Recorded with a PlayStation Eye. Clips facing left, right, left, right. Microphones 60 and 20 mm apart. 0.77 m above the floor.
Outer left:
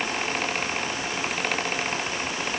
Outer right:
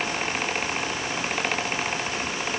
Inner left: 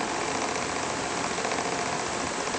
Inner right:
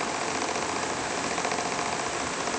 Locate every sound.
Only background noise.